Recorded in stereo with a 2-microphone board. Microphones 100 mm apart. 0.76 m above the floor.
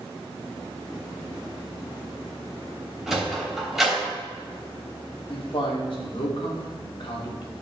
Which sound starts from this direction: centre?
A sliding door, at 3.1 s.